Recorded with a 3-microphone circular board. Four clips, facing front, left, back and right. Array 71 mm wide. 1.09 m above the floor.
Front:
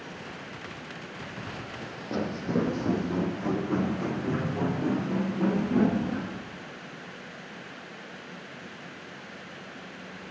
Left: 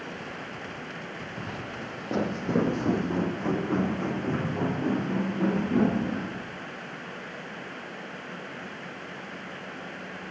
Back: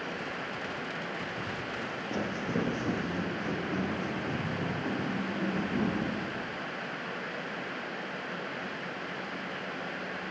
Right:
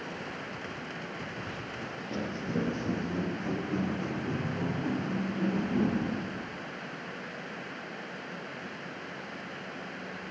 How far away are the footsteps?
About 2.5 m.